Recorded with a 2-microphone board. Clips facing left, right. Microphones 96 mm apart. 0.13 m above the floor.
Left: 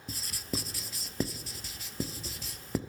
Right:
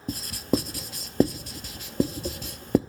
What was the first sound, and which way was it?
Writing, 55° right (ahead or behind).